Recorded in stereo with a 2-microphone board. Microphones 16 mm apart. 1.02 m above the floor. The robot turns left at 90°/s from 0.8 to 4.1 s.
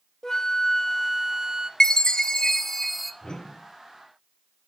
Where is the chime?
110° left, 0.8 m; by 3.1 s 5° right, 0.8 m.